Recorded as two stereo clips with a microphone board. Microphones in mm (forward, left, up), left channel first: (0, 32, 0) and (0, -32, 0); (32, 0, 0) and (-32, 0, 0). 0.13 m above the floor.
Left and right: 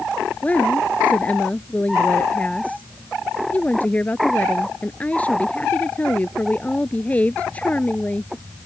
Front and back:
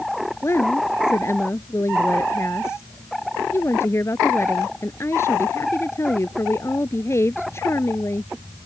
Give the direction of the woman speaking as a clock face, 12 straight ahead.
11 o'clock.